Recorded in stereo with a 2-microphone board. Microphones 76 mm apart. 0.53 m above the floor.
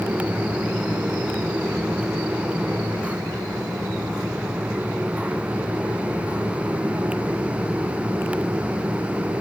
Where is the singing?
No singing in this recording.